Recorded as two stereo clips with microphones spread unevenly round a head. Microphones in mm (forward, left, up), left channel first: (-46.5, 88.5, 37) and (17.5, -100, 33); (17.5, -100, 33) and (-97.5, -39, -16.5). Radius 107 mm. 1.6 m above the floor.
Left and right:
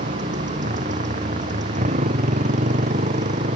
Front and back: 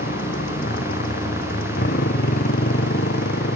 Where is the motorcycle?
15° right.